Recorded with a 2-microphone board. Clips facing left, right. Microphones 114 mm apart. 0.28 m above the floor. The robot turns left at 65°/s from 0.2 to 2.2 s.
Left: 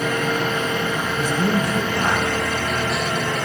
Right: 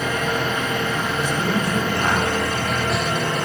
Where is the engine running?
60° left, 3 m; by 3.5 s 70° right, 3 m.